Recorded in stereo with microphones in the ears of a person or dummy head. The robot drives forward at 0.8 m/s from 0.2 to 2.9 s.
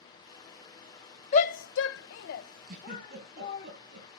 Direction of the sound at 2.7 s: 55° right (ahead or behind).